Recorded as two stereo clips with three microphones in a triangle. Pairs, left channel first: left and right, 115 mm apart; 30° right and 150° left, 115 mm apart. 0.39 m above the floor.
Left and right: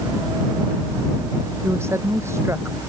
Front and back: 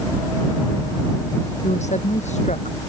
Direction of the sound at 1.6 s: 20° right.